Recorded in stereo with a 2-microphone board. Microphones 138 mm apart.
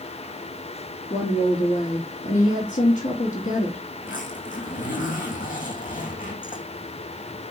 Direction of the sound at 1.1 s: 70° left (ahead or behind).